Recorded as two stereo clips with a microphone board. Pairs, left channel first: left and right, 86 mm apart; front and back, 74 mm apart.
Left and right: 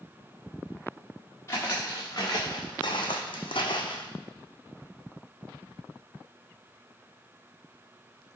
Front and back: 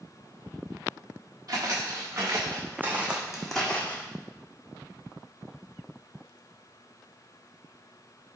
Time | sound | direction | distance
1.5 | footsteps | 145° left | 1.2 m